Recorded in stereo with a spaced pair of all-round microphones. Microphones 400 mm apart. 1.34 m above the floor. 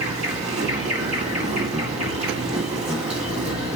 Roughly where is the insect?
Centre.